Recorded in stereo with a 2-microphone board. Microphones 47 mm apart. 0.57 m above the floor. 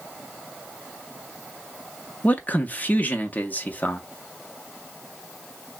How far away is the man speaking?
About 0.7 m.